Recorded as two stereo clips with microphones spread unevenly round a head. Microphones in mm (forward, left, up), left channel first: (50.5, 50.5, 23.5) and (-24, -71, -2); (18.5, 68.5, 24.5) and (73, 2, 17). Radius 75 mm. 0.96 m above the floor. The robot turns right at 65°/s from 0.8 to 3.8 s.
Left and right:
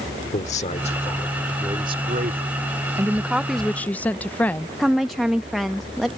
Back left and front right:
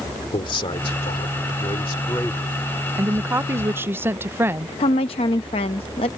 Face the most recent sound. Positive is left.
turn(degrees=150)